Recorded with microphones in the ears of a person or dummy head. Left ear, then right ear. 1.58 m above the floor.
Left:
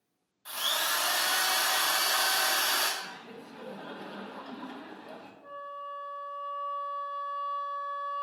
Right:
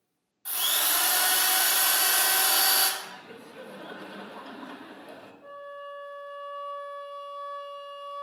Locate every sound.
0.5 s a drill: 10° right (ahead or behind), 1.5 m
3.0 s laughter: centre (ahead or behind), 1.6 m
5.4 s a flute: 30° right (ahead or behind), 1.7 m